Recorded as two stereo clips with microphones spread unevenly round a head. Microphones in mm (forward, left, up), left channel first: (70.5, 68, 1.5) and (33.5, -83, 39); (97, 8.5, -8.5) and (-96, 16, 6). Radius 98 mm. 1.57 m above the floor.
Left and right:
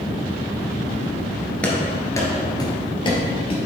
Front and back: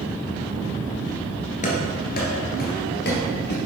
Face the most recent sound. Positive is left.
turn(degrees=20)